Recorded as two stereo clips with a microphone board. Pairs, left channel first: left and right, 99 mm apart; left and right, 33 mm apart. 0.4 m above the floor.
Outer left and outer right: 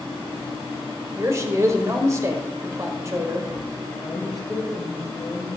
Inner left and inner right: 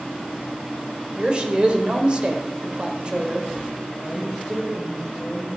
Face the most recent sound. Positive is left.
turn(degrees=0)  # may be behind; listen again after turning